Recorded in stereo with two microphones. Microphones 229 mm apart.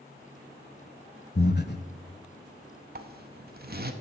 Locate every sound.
1.4 s breathing: 50° left (ahead or behind), 0.7 m
3.0 s a zipper: 45° right (ahead or behind), 0.7 m